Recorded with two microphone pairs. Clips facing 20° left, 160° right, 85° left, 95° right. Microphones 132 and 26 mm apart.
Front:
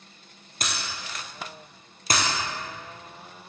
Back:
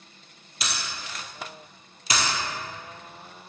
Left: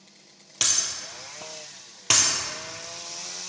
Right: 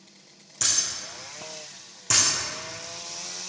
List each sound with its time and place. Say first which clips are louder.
0.6 s breaking glass: front 1 dB, left 1 dB; 60° left, 1.7 m